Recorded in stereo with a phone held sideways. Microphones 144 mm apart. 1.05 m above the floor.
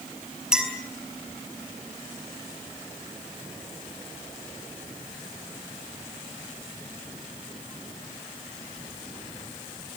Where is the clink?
5° right (ahead or behind), 5.5 m.